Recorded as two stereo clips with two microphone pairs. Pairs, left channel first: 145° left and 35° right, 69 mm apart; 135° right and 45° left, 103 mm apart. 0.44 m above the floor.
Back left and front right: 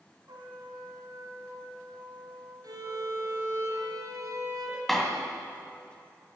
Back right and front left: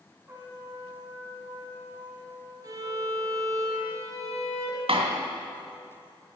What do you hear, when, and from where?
0.3 s a trumpet: 20° right, 3 m
2.6 s a violin: 10° right, 3.5 m
4.9 s a door slam: 60° left, 2 m